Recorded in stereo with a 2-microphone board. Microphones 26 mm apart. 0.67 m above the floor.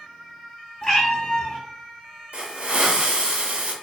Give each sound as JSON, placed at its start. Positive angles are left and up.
{"t": 0.8, "sound": "a cat meowing", "side_deg": 30, "distance_m": 1.5}
{"t": 2.3, "sound": "a hiss", "side_deg": -60, "distance_m": 0.5}